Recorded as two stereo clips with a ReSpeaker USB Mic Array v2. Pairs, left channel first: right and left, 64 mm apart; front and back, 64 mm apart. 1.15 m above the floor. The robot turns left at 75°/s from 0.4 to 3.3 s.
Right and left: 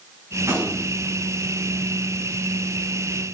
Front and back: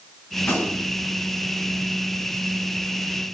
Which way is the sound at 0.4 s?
60° left.